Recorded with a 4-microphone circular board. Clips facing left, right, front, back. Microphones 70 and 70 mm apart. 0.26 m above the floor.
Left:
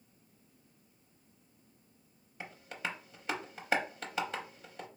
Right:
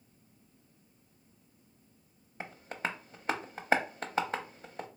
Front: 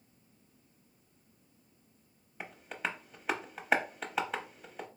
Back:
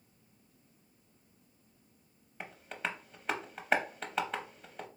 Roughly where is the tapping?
Right.